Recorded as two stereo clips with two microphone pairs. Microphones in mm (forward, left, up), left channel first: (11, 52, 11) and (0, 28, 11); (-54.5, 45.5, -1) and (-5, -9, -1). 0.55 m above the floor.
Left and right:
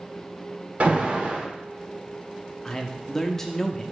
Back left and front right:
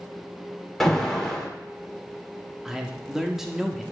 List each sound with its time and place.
0.8 s an alarm: 145° right, 1.0 m
2.6 s a man speaking: 35° left, 0.6 m